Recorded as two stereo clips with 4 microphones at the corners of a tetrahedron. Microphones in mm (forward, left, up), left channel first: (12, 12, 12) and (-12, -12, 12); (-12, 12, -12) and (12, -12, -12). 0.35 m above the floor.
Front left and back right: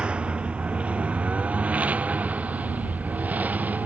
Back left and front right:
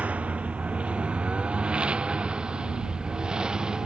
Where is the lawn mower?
85° right; by 3.9 s 110° right.